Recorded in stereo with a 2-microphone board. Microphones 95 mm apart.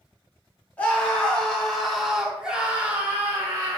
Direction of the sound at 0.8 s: 15° left (ahead or behind).